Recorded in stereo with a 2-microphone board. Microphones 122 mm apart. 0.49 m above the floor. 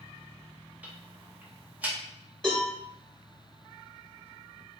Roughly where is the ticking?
Centre.